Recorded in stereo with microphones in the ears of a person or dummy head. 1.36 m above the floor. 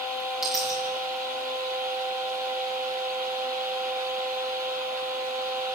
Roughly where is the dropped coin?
Centre.